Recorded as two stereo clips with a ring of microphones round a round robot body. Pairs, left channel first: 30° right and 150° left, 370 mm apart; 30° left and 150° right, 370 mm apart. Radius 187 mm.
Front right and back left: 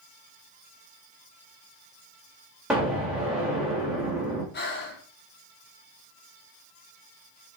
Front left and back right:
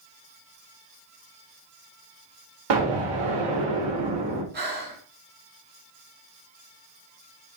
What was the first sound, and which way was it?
An explosion, 120° right.